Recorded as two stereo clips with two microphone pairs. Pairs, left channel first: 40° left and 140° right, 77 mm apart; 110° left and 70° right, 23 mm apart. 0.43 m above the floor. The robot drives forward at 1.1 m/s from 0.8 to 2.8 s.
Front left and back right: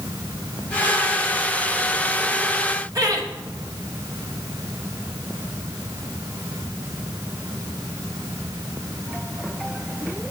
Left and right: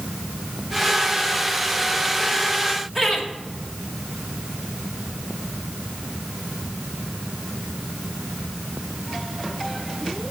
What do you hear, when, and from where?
3.0 s laughter: 155° right, 2 m